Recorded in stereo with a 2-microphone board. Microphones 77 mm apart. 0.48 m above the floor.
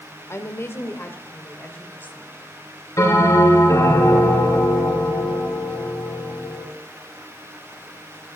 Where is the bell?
50° left (ahead or behind), 6 m.